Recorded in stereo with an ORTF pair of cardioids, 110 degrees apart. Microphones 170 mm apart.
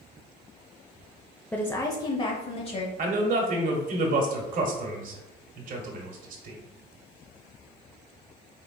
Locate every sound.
1.5 s a woman speaking: 5° left, 0.5 m; by 2.9 s 35° left, 1.1 m
3.0 s a man speaking: 50° right, 1.3 m